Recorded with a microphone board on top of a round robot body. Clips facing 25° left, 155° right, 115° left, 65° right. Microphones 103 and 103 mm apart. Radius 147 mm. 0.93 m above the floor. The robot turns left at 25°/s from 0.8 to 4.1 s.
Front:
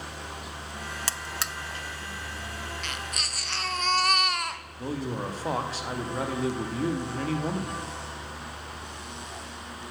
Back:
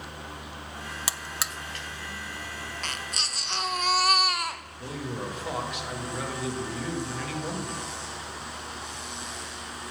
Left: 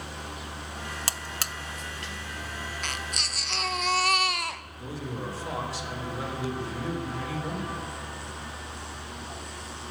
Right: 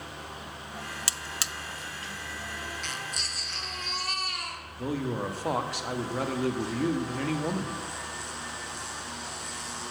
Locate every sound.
1.1 s a buzzer: 125° left, 0.6 m; by 1.5 s 115° left, 0.6 m
2.8 s a baby crying: 150° left, 0.8 m; by 4.6 s 115° left, 0.8 m
4.8 s a man speaking: 35° right, 2.0 m